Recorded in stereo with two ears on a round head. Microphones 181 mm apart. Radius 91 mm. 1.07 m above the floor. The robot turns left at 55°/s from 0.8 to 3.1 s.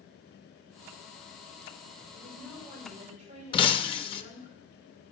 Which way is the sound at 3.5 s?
30° left (ahead or behind).